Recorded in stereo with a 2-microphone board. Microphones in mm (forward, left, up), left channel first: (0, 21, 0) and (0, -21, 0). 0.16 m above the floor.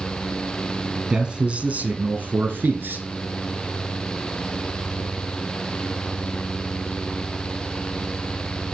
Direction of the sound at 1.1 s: 20° right (ahead or behind).